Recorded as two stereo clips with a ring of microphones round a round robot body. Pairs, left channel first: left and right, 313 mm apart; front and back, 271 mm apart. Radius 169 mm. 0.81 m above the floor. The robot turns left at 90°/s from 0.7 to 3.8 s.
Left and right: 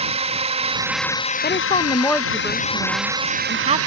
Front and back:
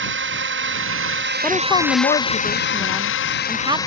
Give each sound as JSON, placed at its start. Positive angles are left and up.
{"t": 0.0, "sound": "a drone", "azimuth_deg": -155}
{"t": 1.4, "sound": "a woman speaking", "azimuth_deg": 80}